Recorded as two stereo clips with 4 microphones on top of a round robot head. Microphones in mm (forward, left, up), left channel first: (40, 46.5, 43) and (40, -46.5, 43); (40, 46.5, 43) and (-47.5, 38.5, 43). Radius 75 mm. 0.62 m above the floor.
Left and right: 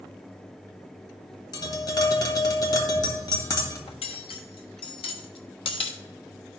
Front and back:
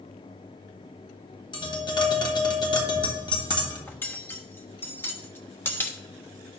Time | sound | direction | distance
1.5 | tapping | 40° left | 1.6 m
3.9 | cutlery clinking | 70° left | 1.1 m